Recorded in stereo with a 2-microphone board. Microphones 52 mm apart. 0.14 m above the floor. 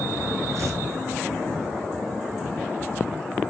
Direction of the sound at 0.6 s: 65° right (ahead or behind).